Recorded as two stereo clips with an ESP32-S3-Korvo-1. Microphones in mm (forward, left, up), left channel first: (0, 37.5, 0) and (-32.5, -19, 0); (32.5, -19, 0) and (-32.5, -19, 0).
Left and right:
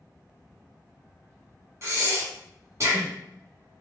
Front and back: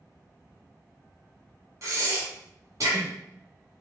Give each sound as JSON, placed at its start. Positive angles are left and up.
{"t": 1.8, "sound": "breathing", "azimuth_deg": -155, "distance_m": 1.2}